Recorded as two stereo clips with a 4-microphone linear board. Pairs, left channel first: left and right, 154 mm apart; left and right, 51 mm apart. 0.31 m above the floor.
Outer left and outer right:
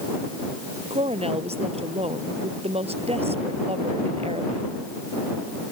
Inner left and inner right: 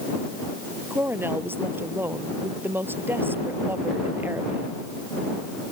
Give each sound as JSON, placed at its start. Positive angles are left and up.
{"t": 0.9, "sound": "a woman speaking", "side_deg": -40}